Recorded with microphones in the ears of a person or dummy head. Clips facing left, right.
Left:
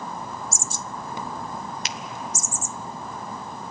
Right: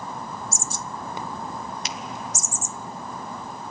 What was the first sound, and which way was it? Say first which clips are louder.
A finger snap: right 1 dB; 55° left (ahead or behind).